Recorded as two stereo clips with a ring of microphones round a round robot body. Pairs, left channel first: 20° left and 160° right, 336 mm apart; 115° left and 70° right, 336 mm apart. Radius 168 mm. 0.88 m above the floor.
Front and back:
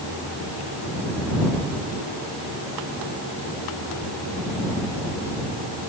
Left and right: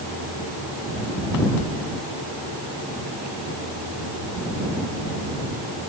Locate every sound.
Only background noise.